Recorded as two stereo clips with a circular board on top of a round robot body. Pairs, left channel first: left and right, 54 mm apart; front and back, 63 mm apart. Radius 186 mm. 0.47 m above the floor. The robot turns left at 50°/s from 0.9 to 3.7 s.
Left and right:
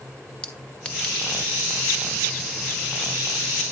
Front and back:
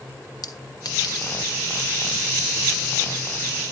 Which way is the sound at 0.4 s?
20° left.